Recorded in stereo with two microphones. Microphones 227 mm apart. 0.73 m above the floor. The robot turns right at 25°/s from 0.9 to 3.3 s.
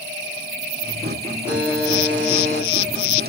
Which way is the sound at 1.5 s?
175° right.